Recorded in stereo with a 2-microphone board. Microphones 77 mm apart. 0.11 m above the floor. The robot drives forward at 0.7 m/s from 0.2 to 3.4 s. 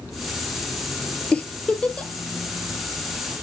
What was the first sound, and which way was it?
A giggle, 15° left (ahead or behind).